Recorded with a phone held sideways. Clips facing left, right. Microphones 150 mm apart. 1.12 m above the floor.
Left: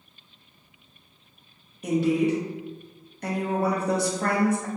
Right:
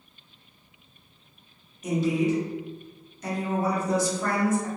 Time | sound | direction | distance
1.8 | a woman speaking | 65° left (ahead or behind) | 0.7 m